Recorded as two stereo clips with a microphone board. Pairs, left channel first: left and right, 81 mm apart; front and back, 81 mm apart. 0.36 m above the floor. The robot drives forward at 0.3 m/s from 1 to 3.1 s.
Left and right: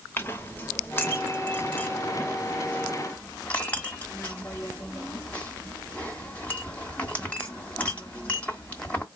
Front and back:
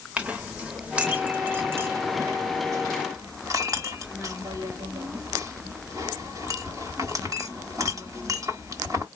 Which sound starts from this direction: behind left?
A clink, at 0.2 s.